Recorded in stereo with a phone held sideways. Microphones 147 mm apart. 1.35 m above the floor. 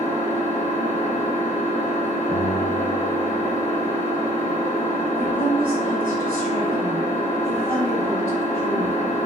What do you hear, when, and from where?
0.0 s an engine running: 45° right (ahead or behind), 1.2 m
2.3 s a guitar: 50° right (ahead or behind), 1.2 m
5.2 s a woman speaking: 85° right, 1.7 m